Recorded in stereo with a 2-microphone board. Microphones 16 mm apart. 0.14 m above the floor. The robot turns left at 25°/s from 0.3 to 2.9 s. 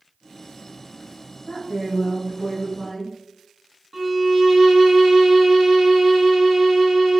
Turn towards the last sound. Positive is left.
turn(degrees=-10)  # may be behind; listen again after turning